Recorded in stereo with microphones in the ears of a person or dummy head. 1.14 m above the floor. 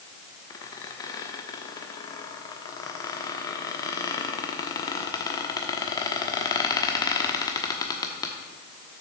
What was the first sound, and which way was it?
A squeak, 25° left (ahead or behind).